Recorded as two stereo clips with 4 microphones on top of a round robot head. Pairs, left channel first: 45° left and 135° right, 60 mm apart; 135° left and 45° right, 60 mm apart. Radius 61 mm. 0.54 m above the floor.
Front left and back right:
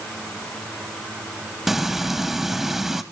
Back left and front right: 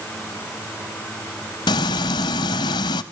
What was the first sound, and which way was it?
Frying, 140° left.